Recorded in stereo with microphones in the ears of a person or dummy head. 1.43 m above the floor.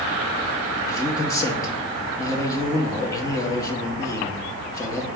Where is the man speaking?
20° left (ahead or behind), 0.6 m.